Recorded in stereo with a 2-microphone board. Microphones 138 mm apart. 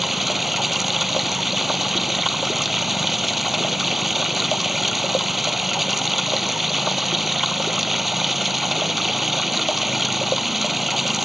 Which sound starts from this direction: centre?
Running water, at 0.0 s.